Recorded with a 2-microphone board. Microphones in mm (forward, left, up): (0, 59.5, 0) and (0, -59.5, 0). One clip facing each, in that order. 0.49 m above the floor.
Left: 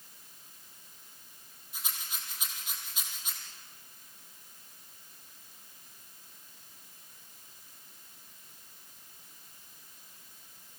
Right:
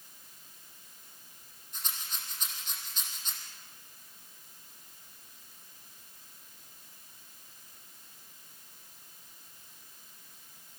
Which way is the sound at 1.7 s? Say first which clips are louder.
Even; 10° left (ahead or behind).